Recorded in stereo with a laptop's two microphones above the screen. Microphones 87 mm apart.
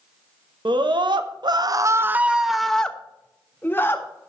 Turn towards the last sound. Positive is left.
turn(degrees=25)  # may be behind; listen again after turning